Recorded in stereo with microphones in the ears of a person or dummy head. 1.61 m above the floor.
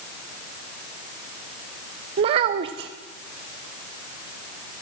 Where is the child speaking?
30° right (ahead or behind), 0.5 m.